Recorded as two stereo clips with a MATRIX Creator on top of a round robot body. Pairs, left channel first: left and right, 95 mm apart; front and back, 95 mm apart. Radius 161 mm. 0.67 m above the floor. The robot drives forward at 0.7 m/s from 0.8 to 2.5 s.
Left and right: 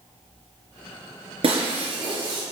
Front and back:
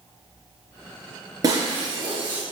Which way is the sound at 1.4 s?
125° right.